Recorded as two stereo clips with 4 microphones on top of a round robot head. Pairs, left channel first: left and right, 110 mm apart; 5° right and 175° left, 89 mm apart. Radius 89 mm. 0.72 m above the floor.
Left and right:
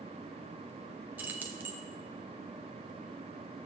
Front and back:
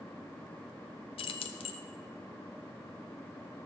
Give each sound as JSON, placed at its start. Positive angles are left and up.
{"t": 1.2, "sound": "keys jangling", "azimuth_deg": -15, "distance_m": 0.6}